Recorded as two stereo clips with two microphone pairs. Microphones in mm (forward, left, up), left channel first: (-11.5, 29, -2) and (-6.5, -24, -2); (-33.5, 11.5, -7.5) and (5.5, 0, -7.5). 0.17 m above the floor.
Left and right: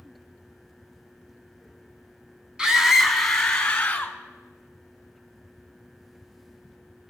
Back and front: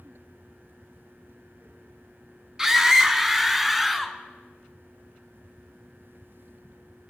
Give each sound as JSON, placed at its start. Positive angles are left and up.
{"t": 2.6, "sound": "a scream", "azimuth_deg": -45, "distance_m": 1.1}